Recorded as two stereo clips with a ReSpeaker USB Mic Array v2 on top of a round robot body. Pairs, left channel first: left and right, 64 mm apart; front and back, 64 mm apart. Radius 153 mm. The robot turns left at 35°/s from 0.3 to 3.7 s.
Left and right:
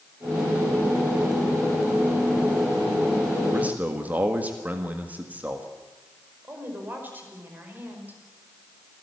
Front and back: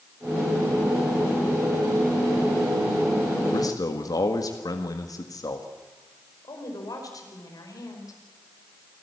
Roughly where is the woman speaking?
Ahead right.